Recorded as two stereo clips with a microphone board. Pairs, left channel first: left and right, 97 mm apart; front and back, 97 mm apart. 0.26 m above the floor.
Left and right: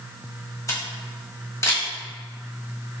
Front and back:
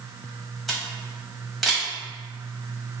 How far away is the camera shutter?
About 1.5 m.